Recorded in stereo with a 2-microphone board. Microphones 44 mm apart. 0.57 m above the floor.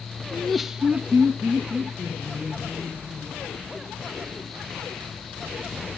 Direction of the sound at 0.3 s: 15° left (ahead or behind).